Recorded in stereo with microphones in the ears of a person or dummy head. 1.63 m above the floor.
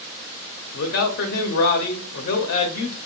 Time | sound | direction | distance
0.7 | a man speaking | 55° left (ahead or behind) | 0.7 m